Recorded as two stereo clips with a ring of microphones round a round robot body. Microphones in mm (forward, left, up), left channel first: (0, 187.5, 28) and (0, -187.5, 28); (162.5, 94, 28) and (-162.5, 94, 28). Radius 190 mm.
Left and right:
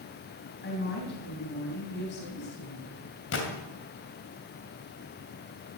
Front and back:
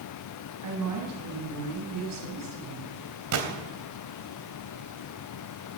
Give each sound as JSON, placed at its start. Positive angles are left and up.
{"t": 0.6, "sound": "a woman speaking", "azimuth_deg": 150, "distance_m": 3.5}
{"t": 3.3, "sound": "a gunshot", "azimuth_deg": 145, "distance_m": 3.0}